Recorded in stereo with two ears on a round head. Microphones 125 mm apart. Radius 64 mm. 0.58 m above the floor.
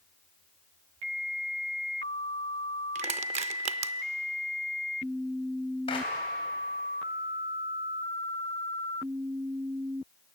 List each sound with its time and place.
3.0 s crushing: 45° right (ahead or behind), 0.5 m
5.9 s a clap: 40° left (ahead or behind), 3.5 m